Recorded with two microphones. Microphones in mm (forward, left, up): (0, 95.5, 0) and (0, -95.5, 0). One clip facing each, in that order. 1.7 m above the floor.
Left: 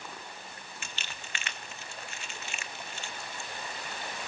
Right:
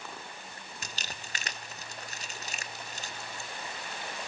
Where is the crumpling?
40° right (ahead or behind), 1.2 m.